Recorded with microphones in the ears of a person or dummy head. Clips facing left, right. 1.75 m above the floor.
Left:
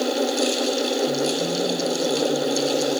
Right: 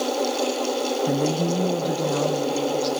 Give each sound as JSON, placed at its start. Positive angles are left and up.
{"t": 1.1, "sound": "a woman speaking", "side_deg": -65, "distance_m": 0.9}